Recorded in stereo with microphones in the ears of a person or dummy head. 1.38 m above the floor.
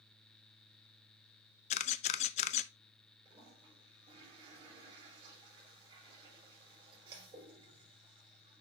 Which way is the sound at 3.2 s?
30° right (ahead or behind).